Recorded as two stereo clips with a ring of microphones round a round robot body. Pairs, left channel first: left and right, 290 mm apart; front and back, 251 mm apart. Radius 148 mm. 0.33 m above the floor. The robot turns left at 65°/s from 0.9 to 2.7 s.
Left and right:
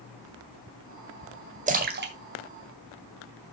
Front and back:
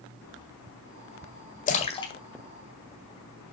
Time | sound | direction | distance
1.7 | a splash | 40° right | 1.7 m